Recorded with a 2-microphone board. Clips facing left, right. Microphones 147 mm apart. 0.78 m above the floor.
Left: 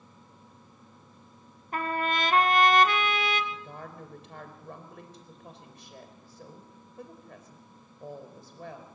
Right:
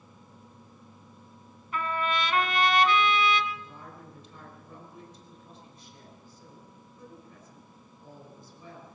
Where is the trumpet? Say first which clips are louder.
Left 1 dB; 50° left (ahead or behind), 1.5 m.